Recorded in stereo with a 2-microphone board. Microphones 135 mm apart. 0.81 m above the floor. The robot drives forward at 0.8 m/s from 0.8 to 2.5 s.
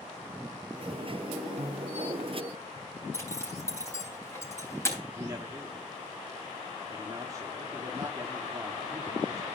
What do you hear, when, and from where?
1.6 s a piano: 60° right (ahead or behind), 0.8 m; by 2.2 s 40° right (ahead or behind), 1.1 m
3.1 s a zipper: 20° left (ahead or behind), 3.5 m
5.2 s a man speaking: 25° right (ahead or behind), 1.8 m